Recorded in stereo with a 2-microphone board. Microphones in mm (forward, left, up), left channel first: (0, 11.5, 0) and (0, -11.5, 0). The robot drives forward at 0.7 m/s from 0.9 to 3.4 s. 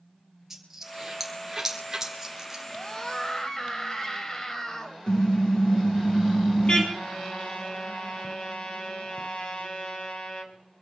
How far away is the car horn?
About 5 m.